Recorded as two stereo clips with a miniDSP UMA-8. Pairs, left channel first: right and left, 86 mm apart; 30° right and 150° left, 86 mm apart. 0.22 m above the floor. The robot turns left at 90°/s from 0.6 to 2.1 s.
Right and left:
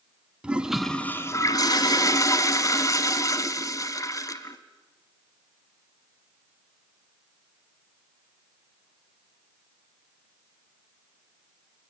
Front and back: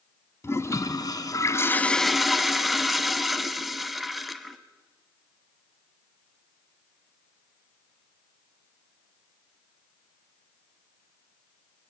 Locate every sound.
0.4 s a toilet flushing: 15° left, 1.1 m; by 4.6 s 120° right, 1.1 m